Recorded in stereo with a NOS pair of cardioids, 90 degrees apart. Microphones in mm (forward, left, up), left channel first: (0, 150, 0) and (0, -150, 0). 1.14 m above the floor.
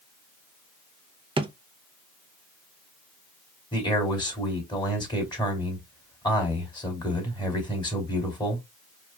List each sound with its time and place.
1.4 s a drawer: 20° right, 0.6 m
3.7 s a man speaking: 15° left, 2.5 m